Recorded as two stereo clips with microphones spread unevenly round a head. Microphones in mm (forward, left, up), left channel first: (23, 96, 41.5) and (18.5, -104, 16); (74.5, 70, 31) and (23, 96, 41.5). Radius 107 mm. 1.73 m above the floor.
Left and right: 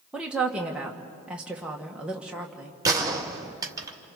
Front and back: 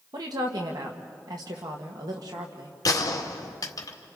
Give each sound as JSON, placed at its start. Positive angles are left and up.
{"t": 0.1, "sound": "a woman speaking", "azimuth_deg": 180, "distance_m": 1.6}
{"t": 2.9, "sound": "a gunshot", "azimuth_deg": -15, "distance_m": 2.0}